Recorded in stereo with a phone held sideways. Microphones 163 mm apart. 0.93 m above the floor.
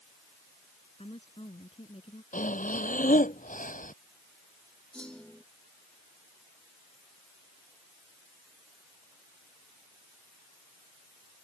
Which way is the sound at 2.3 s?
60° left (ahead or behind).